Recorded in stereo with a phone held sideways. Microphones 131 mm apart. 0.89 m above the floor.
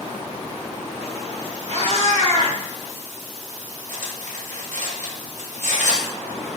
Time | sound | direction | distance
1.7 | a cat meowing | 65° right (ahead or behind) | 1.2 m
3.9 | cutlery clinking | 75° right (ahead or behind) | 0.6 m